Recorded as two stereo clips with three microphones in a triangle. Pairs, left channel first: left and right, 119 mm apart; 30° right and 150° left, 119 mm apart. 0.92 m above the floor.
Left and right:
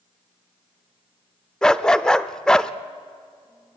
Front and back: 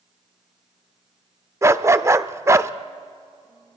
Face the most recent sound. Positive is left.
turn(degrees=165)